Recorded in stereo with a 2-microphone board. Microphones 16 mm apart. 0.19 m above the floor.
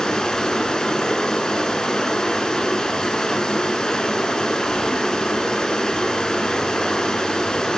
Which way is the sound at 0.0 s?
60° left (ahead or behind).